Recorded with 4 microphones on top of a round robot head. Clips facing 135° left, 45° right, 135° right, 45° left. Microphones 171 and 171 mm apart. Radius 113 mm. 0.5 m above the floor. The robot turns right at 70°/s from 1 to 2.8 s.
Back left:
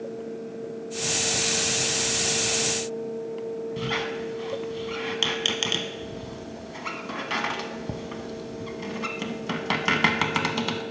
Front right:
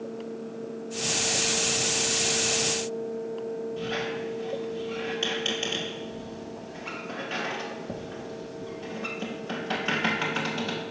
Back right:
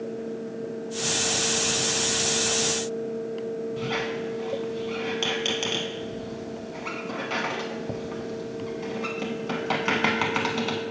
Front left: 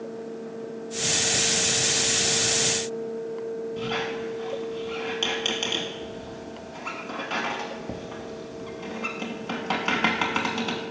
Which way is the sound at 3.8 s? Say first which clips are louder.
Back left 1 dB, even; 140° left.